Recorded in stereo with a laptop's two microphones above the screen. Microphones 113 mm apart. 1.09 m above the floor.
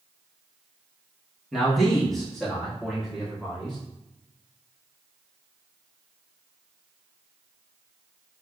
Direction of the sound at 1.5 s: Centre (ahead or behind).